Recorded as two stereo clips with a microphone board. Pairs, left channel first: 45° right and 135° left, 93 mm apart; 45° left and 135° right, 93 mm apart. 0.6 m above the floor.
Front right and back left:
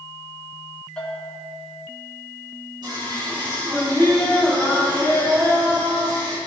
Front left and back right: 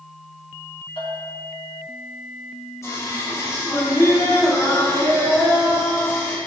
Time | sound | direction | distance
1.0 | a bell | 35° left | 4 m
2.8 | singing | 100° left | 4.5 m